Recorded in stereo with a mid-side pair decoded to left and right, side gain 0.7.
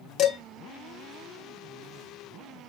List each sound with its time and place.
0.2 s dishes clattering: 50° left, 2.0 m